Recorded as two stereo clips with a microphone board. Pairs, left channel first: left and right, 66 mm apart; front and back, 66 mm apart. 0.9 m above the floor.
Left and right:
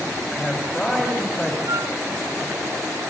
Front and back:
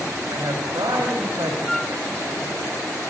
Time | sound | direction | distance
0.3 | a man speaking | 175° left | 5 m
1.7 | a flute | 80° right | 0.6 m